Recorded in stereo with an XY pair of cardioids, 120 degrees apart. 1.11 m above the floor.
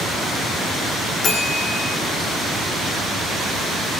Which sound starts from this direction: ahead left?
A bell, at 1.2 s.